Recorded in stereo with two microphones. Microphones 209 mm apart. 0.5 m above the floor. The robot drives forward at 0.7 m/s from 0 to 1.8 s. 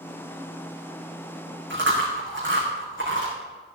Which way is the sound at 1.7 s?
65° right (ahead or behind).